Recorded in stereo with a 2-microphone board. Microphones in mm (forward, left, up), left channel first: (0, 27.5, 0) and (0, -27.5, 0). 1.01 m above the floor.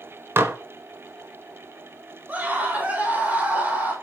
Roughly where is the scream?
Right.